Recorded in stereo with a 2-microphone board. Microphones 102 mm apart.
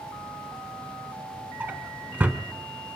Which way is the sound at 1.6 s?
20° right (ahead or behind).